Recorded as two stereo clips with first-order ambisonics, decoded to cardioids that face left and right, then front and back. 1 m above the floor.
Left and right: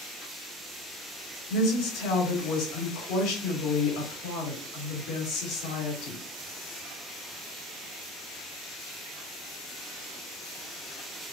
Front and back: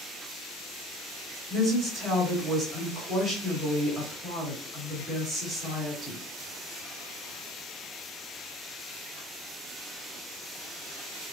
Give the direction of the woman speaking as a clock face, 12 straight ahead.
8 o'clock.